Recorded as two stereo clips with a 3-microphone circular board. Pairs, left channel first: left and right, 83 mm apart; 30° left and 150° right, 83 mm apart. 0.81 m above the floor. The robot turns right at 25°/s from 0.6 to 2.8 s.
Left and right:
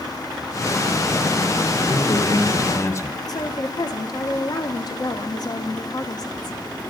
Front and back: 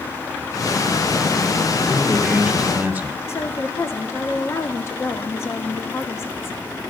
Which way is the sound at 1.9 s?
115° left.